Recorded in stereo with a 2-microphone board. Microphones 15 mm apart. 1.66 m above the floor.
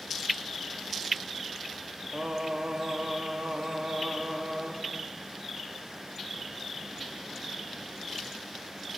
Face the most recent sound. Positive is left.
turn(degrees=-80)